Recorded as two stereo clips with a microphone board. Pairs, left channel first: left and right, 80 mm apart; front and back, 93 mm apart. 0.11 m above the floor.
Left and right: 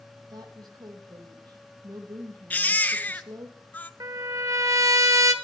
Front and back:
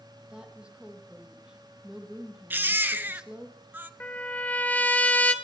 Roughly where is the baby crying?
Behind left.